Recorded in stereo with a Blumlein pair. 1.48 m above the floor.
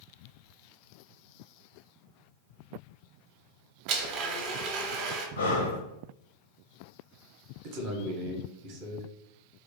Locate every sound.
3.9 s a blender: 40° right, 0.6 m
5.4 s breathing: 65° left, 0.5 m
7.6 s a man speaking: 40° right, 0.6 m